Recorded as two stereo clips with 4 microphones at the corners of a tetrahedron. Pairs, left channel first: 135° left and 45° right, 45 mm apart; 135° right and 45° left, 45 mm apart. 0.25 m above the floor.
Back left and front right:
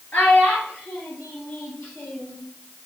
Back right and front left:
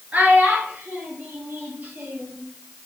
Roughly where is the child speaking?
Left.